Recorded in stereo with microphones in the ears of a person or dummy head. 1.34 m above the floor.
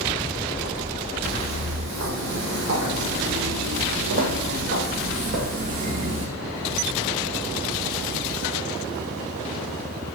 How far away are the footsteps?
About 4 m.